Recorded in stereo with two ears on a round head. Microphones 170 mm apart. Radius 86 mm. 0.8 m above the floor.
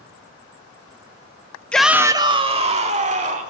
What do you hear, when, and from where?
1.7 s a shout: 5° left (ahead or behind), 0.8 m; by 3.5 s 40° right (ahead or behind), 3 m